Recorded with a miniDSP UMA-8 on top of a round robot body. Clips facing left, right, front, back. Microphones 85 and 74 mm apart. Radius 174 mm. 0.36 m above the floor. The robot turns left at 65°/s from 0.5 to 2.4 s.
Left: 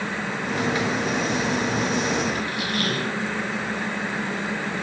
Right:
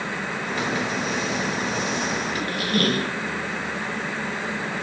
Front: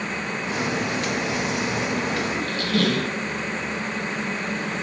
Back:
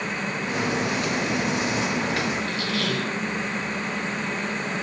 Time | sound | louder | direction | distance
2.4 | a squeak | right 2 dB, front 3 dB | 40° right | 1.8 m